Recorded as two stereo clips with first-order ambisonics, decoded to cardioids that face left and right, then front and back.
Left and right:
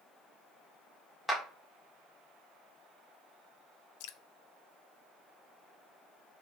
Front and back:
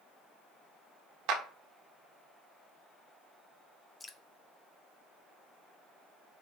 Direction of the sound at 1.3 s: 175° left.